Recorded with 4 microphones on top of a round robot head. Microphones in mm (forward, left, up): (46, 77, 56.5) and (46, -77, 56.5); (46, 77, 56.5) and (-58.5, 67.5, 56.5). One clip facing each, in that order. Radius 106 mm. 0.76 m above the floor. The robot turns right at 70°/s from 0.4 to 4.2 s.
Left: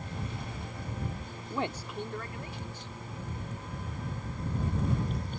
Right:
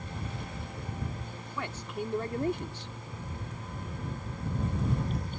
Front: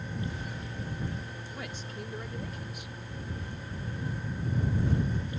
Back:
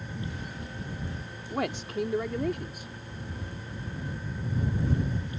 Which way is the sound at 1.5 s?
150° left.